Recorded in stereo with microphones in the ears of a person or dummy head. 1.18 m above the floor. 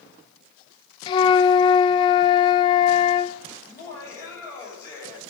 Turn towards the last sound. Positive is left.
turn(degrees=15)  # may be behind; listen again after turning